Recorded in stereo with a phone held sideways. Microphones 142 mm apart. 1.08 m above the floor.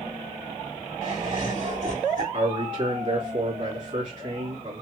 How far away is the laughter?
About 3 m.